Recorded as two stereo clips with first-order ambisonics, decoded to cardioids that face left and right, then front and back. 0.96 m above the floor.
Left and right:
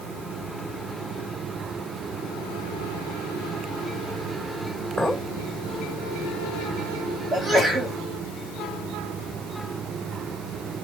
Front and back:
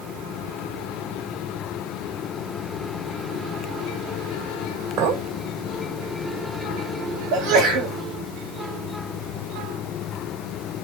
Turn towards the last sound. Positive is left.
turn(degrees=-170)